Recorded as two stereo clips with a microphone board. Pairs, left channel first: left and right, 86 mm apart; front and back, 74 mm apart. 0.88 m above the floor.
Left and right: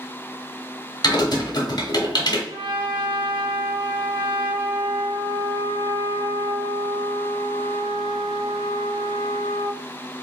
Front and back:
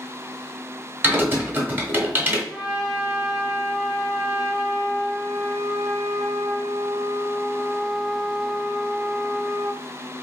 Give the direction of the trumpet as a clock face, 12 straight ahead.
3 o'clock.